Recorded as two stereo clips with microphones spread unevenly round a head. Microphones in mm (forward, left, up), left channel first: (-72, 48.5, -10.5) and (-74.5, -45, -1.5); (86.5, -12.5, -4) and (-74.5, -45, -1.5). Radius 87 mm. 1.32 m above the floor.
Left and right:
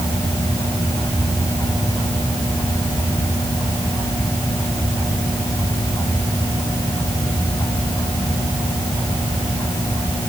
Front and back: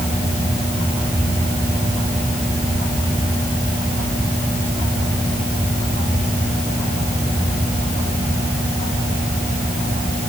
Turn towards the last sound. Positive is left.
No sound to turn to.